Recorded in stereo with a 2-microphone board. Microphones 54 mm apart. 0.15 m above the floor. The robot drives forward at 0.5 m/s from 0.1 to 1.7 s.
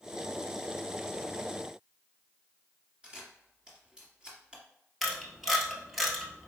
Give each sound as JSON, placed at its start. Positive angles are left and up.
{"t": 3.0, "sound": "a camera shutter", "side_deg": -15, "distance_m": 1.9}
{"t": 5.0, "sound": "a camera shutter", "side_deg": 0, "distance_m": 1.1}